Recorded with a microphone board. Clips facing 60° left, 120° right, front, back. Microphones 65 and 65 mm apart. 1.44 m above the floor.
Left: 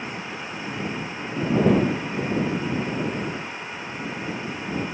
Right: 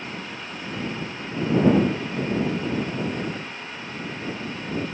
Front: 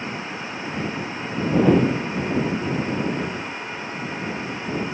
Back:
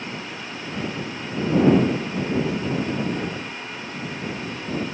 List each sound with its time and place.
Only background noise.